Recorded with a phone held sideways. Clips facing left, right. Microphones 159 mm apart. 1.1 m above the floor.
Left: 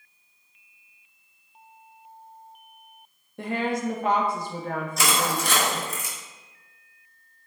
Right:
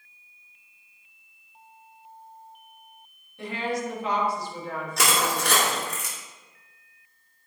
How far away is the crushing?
About 2.5 m.